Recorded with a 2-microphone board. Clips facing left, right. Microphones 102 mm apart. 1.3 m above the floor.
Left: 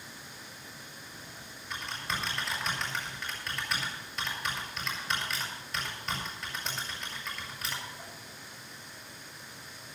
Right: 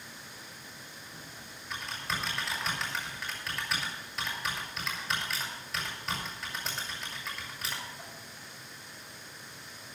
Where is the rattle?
I don't hear a rattle.